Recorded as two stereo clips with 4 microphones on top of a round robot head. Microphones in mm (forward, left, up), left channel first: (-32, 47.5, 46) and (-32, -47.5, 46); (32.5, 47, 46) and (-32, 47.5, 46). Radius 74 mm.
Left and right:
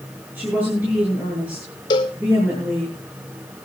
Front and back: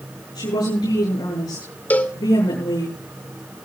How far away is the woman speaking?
About 9 m.